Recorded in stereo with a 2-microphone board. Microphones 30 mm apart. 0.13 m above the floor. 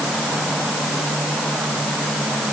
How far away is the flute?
No flute in this recording.